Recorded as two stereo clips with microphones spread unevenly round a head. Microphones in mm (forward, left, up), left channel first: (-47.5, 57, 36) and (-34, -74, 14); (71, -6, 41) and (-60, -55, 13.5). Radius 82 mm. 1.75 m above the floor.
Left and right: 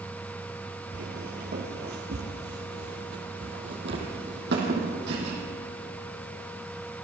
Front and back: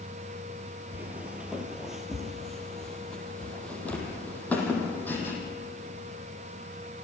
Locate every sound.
0.9 s footsteps: 75° right, 2.5 m; by 5.3 s 50° right, 5 m